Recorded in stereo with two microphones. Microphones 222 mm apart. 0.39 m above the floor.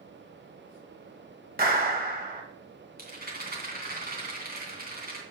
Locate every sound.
1.6 s a clap: 40° right (ahead or behind), 1.5 m
3.0 s a rattle: 45° right (ahead or behind), 2.5 m